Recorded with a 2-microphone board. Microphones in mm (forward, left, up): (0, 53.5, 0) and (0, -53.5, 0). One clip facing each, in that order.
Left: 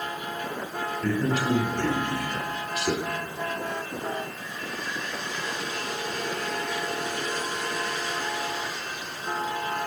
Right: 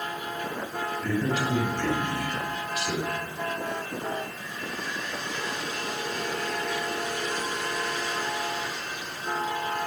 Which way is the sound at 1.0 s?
75° left (ahead or behind).